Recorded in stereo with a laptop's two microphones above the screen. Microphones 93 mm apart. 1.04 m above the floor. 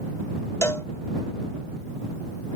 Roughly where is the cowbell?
Left.